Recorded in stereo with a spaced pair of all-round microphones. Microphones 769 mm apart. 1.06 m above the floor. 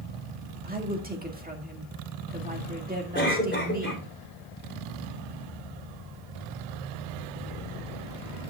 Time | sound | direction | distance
0.6 | a woman speaking | 10° right (ahead or behind) | 1.9 m
3.1 | a cough | 15° left (ahead or behind) | 3.5 m